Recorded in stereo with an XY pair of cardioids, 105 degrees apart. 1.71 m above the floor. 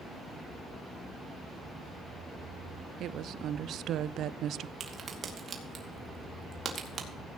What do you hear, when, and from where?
3.0 s a woman speaking: 70° right, 0.5 m
4.8 s a crack: 45° right, 2.5 m